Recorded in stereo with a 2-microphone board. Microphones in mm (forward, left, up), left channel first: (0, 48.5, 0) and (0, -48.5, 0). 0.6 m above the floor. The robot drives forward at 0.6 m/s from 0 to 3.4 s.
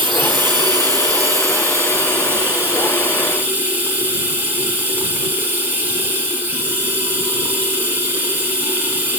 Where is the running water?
55° right (ahead or behind), 1.1 m; by 9.2 s 20° right (ahead or behind), 3 m.